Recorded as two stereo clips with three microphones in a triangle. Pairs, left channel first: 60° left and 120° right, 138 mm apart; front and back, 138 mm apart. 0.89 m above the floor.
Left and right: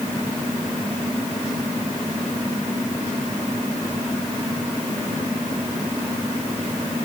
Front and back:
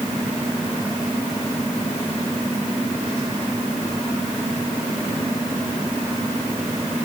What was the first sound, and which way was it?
Only background noise.